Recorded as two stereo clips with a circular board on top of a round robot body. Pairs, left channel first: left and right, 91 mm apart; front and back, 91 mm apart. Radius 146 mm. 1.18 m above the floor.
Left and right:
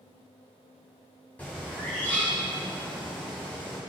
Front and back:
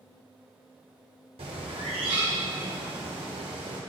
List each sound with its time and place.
1.4 s a bird: 165° left, 1.7 m